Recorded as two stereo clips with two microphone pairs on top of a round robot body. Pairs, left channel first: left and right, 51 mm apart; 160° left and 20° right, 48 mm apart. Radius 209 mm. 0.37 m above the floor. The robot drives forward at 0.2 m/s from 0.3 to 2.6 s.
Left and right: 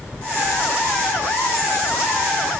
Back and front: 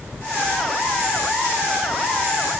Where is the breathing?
No breathing in this recording.